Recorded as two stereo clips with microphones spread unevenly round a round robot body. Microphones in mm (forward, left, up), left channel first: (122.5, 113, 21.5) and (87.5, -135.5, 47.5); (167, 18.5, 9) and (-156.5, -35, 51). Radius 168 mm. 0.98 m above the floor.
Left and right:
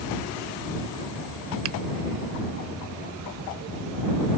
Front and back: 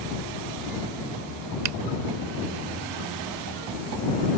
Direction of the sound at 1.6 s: 150° right.